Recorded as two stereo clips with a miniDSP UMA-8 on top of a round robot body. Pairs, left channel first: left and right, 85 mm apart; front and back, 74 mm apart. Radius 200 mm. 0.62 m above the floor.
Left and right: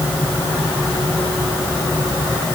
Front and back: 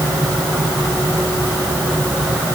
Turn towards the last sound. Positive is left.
No sound to turn to.